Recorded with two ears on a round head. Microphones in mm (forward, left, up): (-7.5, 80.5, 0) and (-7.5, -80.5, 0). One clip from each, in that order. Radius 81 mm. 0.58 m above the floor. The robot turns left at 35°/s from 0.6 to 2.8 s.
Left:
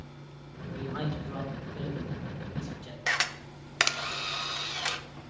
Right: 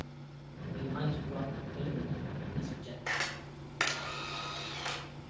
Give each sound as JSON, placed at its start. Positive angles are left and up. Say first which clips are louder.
{"t": 0.7, "sound": "a man speaking", "louder": "left 2 dB", "azimuth_deg": 115, "distance_m": 2.0}
{"t": 3.1, "sound": "a camera shutter", "louder": "left 6 dB", "side_deg": 70, "distance_m": 0.6}